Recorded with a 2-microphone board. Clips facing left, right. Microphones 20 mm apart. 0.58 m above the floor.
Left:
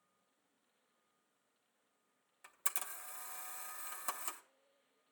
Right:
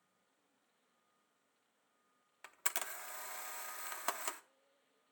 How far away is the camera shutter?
About 0.7 m.